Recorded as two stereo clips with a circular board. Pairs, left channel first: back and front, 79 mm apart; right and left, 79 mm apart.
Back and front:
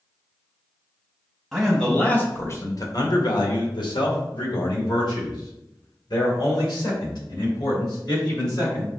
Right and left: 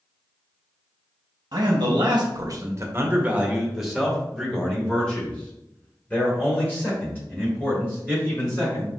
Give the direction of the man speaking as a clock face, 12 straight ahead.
9 o'clock.